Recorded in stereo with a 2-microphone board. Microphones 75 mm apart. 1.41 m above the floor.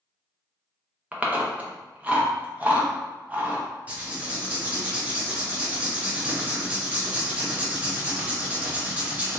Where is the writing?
20° right (ahead or behind), 1.0 m.